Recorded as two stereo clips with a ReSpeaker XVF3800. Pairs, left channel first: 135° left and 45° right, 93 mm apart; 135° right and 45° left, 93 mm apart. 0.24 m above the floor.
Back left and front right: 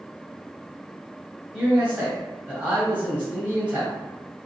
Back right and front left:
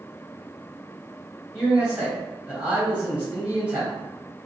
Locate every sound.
1.5 s a man speaking: 5° right, 1.0 m